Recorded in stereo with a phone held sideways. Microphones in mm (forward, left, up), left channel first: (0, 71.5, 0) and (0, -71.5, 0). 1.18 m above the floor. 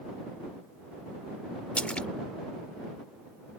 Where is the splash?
10° left (ahead or behind).